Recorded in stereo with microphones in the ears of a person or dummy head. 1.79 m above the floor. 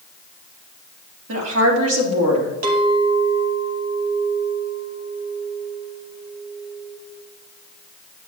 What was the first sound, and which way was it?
A woman speaking, 80° right.